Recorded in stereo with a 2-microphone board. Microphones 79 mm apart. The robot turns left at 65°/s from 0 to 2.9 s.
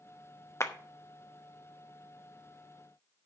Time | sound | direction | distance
0.6 | a clap | 35° left (ahead or behind) | 0.8 m